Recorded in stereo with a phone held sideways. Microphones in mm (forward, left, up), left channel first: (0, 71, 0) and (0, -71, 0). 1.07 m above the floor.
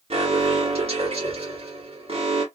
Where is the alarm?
45° right (ahead or behind), 1.6 m.